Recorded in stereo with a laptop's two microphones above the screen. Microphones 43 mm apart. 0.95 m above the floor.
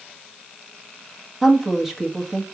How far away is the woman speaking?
About 1.4 m.